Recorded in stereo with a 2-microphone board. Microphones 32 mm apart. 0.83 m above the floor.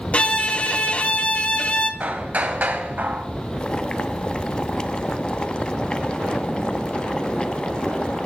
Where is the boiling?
30° left (ahead or behind), 0.6 m.